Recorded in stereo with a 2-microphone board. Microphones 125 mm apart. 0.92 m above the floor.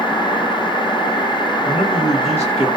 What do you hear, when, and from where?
1.6 s a man speaking: 55° left (ahead or behind), 1.2 m